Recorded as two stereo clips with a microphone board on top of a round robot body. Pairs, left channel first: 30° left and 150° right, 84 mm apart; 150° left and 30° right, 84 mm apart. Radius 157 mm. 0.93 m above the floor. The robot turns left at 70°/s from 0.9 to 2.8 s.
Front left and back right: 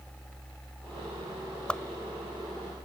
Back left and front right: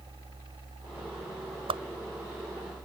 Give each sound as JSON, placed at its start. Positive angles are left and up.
{"t": 1.7, "sound": "a whoosh", "azimuth_deg": -45}